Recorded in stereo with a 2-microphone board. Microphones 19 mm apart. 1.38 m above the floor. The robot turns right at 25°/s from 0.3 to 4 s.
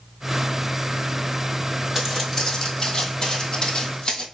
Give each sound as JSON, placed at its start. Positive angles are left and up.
{"t": 1.9, "sound": "footsteps", "side_deg": -5, "distance_m": 1.6}